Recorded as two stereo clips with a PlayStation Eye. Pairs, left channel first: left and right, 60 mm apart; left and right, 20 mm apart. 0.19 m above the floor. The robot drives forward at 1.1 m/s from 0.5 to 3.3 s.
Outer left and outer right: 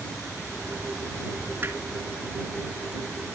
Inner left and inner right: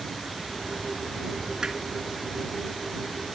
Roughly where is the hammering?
Right.